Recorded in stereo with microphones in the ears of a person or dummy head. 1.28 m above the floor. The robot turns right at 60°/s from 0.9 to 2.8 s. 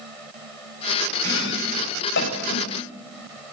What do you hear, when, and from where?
1.2 s chopping: 60° left (ahead or behind), 7.5 m; by 2.7 s 35° left (ahead or behind), 7.5 m